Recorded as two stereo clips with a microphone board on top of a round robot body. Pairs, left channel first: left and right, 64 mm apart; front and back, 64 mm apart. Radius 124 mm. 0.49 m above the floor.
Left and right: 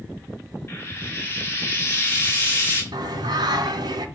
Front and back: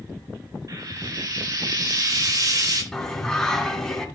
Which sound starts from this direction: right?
Singing, at 2.9 s.